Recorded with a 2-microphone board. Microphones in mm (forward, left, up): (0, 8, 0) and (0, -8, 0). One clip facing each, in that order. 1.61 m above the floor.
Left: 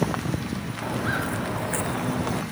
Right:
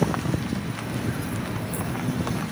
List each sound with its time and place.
0.8 s footsteps: 55° left (ahead or behind); by 2.4 s 60° left (ahead or behind)